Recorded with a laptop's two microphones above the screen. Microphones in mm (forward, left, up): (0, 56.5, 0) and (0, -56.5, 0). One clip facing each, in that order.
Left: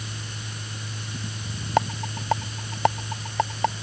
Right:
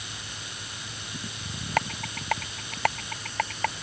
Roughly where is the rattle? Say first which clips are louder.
Left 5 dB; left.